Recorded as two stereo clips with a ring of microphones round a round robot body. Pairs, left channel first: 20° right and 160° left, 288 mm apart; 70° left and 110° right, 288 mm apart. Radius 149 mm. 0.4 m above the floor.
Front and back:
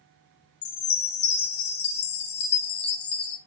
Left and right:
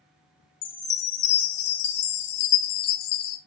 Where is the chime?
35° left, 1.1 m.